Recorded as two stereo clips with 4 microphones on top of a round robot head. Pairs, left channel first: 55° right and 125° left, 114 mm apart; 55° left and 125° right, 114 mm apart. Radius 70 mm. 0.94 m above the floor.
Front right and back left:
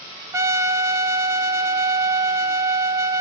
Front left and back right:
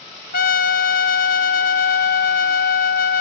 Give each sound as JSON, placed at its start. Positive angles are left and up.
{"t": 0.3, "sound": "a trumpet", "azimuth_deg": 55, "distance_m": 0.6}